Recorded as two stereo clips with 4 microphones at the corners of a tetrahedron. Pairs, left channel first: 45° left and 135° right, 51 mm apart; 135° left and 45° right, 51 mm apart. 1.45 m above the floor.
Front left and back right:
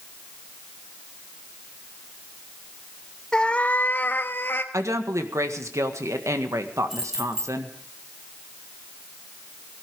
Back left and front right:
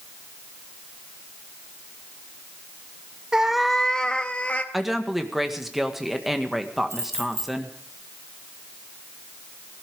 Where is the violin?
No violin in this recording.